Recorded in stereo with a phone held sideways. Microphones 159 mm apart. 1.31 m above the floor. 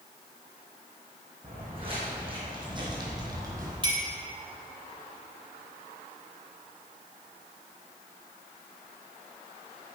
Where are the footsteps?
35° right (ahead or behind), 3 m; by 3.7 s 20° right (ahead or behind), 1.9 m.